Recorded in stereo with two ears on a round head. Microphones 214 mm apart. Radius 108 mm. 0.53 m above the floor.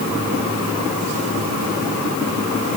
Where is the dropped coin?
No dropped coin in this recording.